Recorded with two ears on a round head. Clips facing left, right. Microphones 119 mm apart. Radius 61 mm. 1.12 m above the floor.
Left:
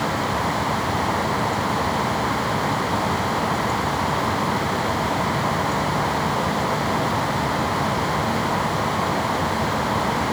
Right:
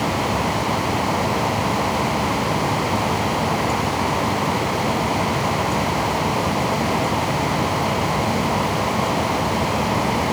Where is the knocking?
No knocking in this recording.